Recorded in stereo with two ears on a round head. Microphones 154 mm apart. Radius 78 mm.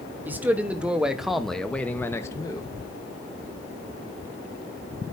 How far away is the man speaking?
About 1.7 m.